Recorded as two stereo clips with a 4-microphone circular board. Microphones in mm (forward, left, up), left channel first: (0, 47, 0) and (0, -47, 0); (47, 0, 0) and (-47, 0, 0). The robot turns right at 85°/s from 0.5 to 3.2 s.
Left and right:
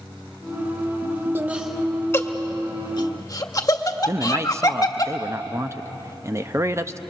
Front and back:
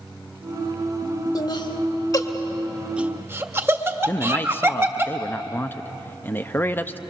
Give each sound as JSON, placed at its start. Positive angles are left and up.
{"t": 1.4, "sound": "laughter", "azimuth_deg": -30, "distance_m": 1.6}
{"t": 4.1, "sound": "a man speaking", "azimuth_deg": -55, "distance_m": 0.6}